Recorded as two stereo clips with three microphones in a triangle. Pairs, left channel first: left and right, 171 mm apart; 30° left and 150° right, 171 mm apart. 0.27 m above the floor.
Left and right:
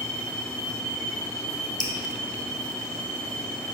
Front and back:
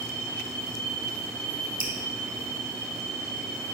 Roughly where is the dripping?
Behind left.